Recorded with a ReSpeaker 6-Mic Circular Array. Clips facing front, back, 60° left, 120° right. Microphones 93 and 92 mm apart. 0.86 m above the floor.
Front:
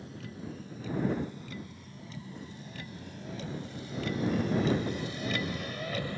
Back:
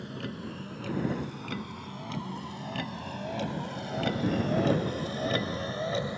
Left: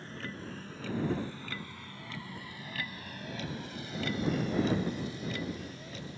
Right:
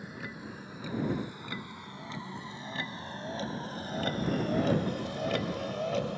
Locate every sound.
0.0 s a vehicle: 160° left; by 6.2 s 110° right